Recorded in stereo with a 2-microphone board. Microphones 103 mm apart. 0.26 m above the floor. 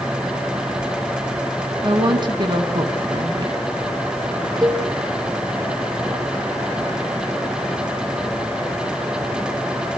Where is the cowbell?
40° right (ahead or behind), 1.8 m.